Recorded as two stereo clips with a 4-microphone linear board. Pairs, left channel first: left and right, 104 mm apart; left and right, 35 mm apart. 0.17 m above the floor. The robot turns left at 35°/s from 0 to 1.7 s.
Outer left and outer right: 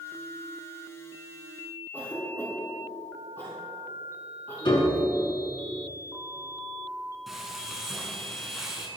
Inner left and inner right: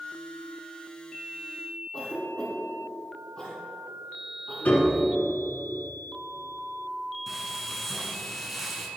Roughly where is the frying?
Centre.